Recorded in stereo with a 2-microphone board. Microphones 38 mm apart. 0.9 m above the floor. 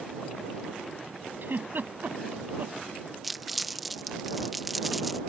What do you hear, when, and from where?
1.4 s a giggle: 65° right (ahead or behind)
3.2 s crumpling: centre (ahead or behind)